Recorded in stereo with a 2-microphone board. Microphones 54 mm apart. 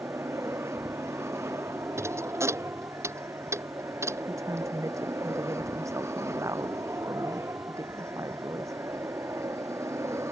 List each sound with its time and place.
0.0 s an aircraft: 60° right (ahead or behind); by 10.3 s 65° right (ahead or behind)
2.0 s a thud: 60° right (ahead or behind)
4.3 s a woman speaking: 75° right (ahead or behind)